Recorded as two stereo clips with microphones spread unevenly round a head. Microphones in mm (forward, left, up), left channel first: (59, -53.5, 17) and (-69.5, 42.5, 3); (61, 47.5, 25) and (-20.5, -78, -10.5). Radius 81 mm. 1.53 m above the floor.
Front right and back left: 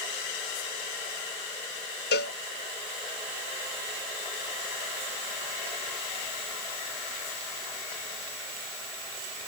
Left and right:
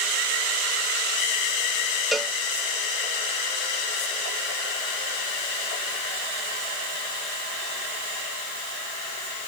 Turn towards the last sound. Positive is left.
turn(degrees=-25)